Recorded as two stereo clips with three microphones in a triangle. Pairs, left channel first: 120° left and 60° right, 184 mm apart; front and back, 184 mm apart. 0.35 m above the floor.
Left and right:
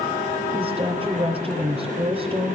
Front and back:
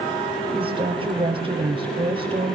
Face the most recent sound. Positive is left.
turn(degrees=-120)